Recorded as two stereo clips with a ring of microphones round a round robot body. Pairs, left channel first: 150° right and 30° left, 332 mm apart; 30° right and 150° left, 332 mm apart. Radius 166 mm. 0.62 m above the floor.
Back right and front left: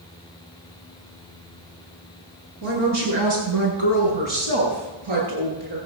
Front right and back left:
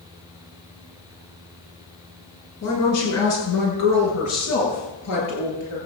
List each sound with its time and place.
2.6 s a woman speaking: 15° left, 8 m